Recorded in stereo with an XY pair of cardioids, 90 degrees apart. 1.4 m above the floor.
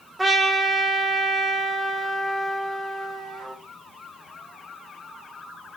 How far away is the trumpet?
About 1.3 m.